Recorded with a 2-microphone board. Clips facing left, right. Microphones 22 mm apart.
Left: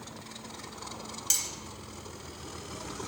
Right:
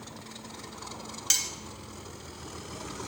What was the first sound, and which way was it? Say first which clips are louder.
Cutlery clinking: right 3 dB; 25° right (ahead or behind).